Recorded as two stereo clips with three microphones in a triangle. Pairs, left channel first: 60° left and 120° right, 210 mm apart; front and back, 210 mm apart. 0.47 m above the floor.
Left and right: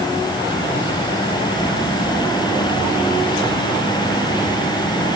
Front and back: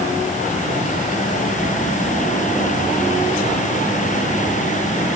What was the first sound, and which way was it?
Only background noise.